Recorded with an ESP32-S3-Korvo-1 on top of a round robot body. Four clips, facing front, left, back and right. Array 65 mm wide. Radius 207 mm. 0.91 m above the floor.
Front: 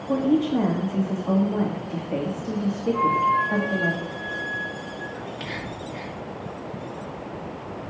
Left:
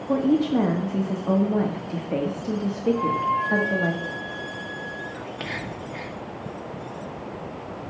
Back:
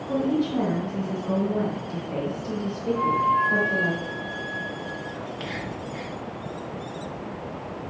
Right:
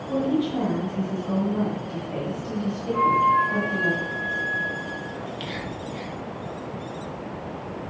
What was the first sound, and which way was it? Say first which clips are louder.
A woman speaking: left 3 dB, front 3 dB; 70° left.